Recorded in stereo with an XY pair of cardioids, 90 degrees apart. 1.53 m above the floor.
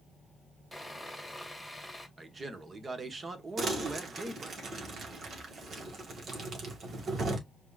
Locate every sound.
0.7 s sawing: straight ahead, 2 m
2.2 s a man speaking: 35° right, 1.4 m
3.6 s crumpling: 55° right, 2 m